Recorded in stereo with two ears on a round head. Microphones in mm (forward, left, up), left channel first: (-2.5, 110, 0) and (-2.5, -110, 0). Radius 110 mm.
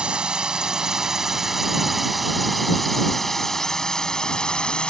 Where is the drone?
5° right (ahead or behind); by 4.9 s 5° left (ahead or behind).